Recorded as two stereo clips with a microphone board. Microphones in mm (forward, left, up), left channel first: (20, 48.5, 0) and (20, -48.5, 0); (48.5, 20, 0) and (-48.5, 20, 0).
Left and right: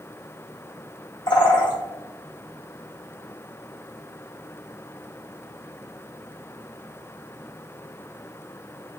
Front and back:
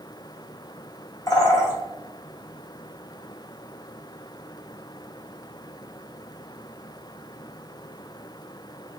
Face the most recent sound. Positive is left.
turn(degrees=50)